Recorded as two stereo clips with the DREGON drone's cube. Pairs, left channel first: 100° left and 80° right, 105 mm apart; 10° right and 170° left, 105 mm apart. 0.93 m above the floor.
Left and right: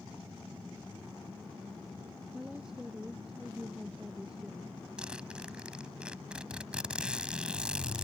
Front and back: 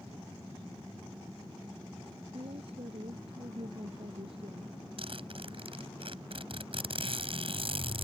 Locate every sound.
2.3 s a woman speaking: 165° right
5.0 s a zipper: 160° right